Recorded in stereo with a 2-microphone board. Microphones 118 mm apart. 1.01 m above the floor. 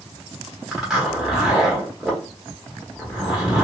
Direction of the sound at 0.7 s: 5° right (ahead or behind).